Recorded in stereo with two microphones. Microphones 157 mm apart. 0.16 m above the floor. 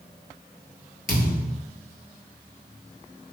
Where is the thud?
65° left (ahead or behind), 1.2 m.